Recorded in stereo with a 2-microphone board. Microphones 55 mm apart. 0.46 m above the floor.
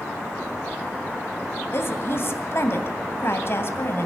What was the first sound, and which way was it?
A woman speaking, 50° left (ahead or behind).